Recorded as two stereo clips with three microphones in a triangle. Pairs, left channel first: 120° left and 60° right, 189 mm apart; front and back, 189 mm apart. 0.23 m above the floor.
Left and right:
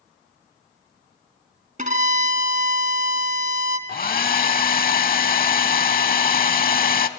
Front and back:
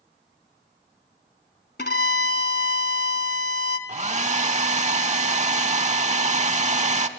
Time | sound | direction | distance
1.8 | a violin | 20° right | 1.0 m
3.9 | a hair dryer | 140° left | 0.6 m